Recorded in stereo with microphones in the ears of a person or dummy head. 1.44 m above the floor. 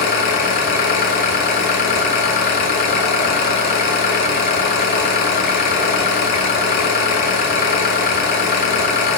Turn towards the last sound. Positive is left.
turn(degrees=45)  # may be behind; listen again after turning